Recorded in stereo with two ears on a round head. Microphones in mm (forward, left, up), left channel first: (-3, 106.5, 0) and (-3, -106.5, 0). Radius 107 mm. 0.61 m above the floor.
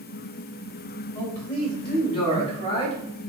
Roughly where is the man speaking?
Left.